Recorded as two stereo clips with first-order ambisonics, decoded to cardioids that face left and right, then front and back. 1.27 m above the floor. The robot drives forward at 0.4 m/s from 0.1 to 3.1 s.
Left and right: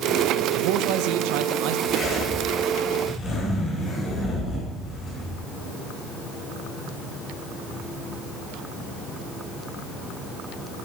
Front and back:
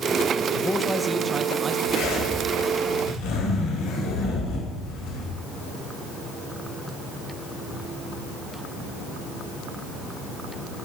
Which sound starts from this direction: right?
A man speaking, at 0.5 s.